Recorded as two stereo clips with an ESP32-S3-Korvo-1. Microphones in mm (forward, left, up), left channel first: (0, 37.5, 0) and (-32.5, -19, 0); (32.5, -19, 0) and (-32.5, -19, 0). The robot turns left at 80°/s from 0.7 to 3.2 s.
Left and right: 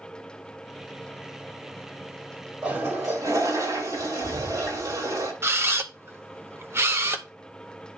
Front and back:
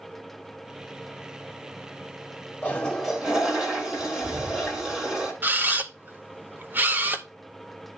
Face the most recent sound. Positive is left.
turn(degrees=-140)